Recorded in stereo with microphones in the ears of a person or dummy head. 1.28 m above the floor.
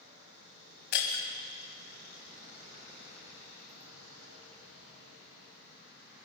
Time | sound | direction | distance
0.9 | breaking glass | 60° left (ahead or behind) | 3.5 m